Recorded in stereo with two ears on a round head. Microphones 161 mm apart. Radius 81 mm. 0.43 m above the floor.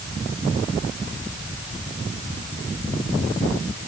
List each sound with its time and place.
Only background noise.